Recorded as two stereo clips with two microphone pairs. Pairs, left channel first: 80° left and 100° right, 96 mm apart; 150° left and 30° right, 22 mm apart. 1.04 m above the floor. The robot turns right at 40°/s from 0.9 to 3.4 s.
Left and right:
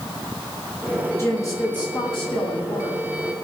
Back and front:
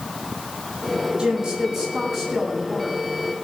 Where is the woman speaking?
15° left, 8.5 m; by 3.0 s 90° left, 8.5 m.